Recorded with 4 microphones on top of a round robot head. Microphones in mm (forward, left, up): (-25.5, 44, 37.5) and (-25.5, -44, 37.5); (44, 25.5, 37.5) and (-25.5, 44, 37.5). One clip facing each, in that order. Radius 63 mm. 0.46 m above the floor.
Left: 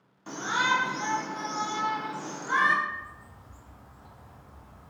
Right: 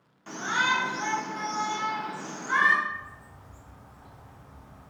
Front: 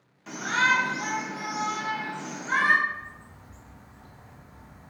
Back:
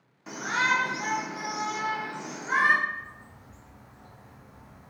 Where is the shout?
120° left, 0.9 m.